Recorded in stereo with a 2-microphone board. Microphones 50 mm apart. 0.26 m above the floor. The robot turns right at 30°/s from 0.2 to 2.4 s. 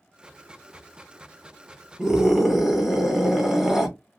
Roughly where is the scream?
Centre.